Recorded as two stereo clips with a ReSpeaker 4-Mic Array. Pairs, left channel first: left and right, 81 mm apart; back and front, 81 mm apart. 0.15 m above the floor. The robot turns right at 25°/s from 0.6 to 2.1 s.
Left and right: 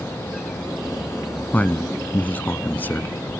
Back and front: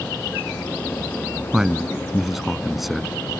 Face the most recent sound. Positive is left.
turn(degrees=85)